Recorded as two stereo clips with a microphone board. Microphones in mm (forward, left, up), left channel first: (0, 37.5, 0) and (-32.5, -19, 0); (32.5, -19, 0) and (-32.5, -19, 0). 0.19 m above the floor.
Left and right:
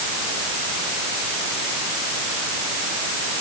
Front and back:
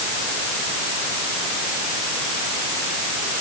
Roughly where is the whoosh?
I don't hear a whoosh.